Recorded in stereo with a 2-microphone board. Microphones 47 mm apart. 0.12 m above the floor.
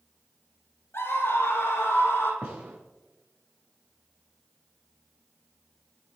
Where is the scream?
55° left (ahead or behind), 6 m; by 2.3 s 50° left (ahead or behind), 7.5 m.